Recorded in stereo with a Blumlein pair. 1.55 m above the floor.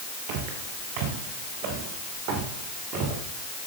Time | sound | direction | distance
0.3 | footsteps | 45° right | 8 m